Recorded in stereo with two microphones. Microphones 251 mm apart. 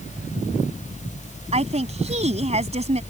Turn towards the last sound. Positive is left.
turn(degrees=-25)  # may be behind; listen again after turning